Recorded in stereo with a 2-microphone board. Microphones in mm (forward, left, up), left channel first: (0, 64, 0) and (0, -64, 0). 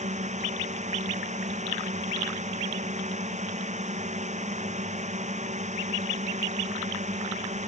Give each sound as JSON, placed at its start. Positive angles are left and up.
{"t": 0.0, "sound": "a drone", "side_deg": -65}